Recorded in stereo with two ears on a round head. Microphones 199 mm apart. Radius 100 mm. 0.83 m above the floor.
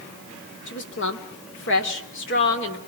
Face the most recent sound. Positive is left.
turn(degrees=55)  # may be behind; listen again after turning